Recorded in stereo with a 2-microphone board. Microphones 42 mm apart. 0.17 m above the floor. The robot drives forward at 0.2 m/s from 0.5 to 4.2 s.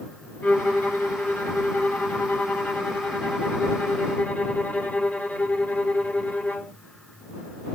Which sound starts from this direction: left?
A violin, at 0.4 s.